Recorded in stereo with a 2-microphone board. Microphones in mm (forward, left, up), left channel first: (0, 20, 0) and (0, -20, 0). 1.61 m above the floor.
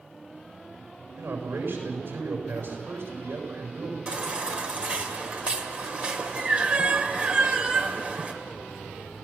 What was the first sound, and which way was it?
A man speaking, 80° right.